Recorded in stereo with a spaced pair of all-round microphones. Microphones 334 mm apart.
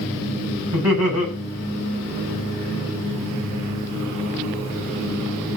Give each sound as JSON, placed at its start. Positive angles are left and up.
{"t": 0.7, "sound": "laughter", "side_deg": -50, "distance_m": 8.0}